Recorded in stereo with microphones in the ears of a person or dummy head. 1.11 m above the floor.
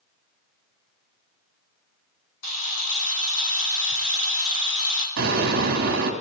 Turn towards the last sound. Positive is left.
turn(degrees=-65)  # may be behind; listen again after turning